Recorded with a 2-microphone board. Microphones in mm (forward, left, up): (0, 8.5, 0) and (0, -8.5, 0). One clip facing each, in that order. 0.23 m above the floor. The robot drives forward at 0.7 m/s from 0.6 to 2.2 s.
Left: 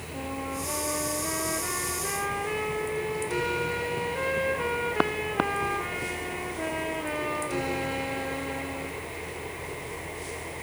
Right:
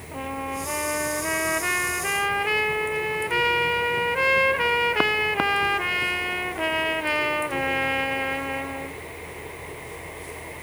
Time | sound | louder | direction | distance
0.1 | a trumpet | right 4 dB | 45° right (ahead or behind) | 1.1 m